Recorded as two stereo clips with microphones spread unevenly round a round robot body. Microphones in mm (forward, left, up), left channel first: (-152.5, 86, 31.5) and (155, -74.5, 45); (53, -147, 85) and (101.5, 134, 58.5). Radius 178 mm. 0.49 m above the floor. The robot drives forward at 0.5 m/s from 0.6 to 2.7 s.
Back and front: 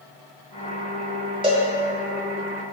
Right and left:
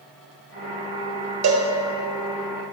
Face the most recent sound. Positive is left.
turn(degrees=75)